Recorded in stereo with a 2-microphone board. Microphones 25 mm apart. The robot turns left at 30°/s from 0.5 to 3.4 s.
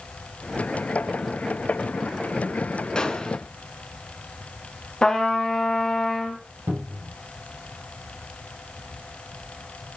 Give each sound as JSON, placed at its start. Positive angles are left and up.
{"t": 3.0, "sound": "a gunshot", "side_deg": 30, "distance_m": 1.6}
{"t": 5.0, "sound": "a trumpet", "side_deg": 30, "distance_m": 1.9}
{"t": 6.7, "sound": "a cupboard door", "side_deg": -65, "distance_m": 4.0}